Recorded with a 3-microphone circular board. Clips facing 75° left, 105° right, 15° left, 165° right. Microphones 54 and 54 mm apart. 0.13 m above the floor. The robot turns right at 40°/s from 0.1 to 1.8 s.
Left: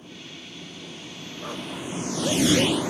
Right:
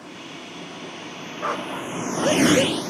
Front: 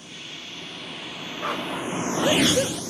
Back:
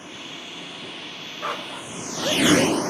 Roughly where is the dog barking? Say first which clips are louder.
Right 7 dB, front 2 dB; right.